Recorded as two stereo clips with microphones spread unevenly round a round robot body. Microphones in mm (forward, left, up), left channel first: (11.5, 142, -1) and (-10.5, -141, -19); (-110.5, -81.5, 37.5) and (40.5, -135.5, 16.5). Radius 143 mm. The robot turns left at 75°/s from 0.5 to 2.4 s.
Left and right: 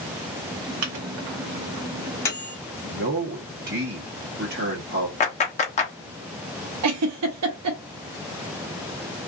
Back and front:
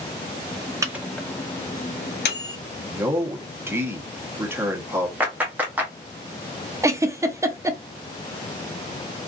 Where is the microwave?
85° right, 0.8 m; by 2.6 s 155° left, 0.8 m.